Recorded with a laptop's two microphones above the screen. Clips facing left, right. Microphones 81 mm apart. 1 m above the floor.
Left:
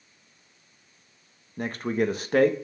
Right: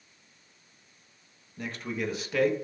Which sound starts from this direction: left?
A man speaking, at 1.6 s.